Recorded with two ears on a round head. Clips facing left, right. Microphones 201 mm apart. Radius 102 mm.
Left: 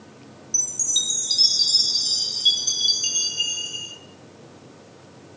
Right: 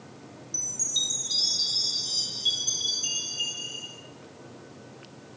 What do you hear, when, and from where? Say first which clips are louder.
0.5 s a chime: left 1 dB; 35° left (ahead or behind), 1.2 m